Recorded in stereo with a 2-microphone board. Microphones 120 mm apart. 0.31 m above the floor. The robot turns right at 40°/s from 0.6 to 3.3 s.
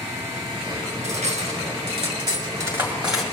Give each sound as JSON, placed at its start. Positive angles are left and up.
{"t": 1.0, "sound": "cutlery clinking", "side_deg": -80, "distance_m": 2.0}